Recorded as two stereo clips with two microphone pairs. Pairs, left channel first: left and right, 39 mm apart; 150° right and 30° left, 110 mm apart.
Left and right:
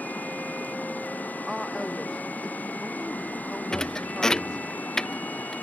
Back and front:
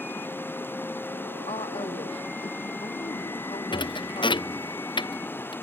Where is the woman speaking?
Straight behind.